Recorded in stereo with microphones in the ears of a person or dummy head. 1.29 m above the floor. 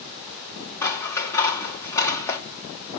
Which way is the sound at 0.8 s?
15° left (ahead or behind).